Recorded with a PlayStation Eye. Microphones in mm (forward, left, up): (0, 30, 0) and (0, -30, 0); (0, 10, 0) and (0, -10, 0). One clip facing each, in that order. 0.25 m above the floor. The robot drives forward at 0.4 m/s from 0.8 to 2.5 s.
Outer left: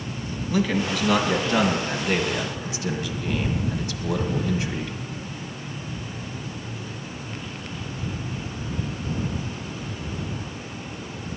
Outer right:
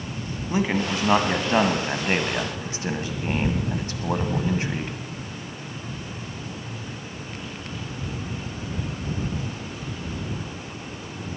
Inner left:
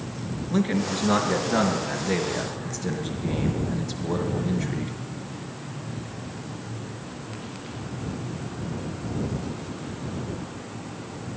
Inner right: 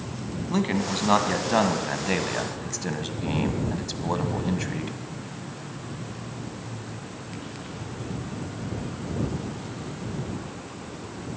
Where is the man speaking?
30° right (ahead or behind), 1.8 m; by 4.9 s 35° right (ahead or behind), 1.5 m.